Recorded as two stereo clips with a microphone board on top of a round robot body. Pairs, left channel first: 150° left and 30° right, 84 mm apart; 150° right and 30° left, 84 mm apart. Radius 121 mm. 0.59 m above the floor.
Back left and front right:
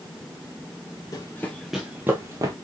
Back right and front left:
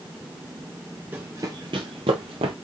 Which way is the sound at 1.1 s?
100° left.